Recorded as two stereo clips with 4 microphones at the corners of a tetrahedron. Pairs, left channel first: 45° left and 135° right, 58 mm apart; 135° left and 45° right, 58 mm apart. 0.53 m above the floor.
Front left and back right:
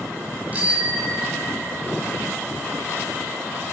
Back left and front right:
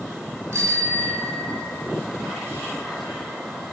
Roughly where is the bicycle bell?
Right.